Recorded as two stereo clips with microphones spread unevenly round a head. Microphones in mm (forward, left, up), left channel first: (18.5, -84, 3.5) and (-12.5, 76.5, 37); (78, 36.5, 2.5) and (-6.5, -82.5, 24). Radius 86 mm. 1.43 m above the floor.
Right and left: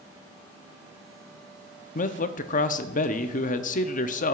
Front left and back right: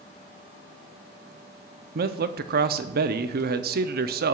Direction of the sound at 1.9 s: 110° right.